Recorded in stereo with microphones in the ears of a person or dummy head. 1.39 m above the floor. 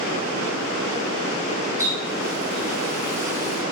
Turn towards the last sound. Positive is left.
turn(degrees=-20)  # may be behind; listen again after turning